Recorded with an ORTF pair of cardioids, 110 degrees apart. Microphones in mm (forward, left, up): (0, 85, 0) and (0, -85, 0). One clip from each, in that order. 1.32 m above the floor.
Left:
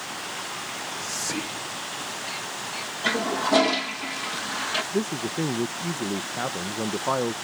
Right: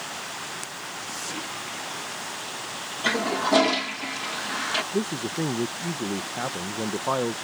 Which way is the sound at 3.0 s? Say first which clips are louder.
Right 1 dB; 10° right.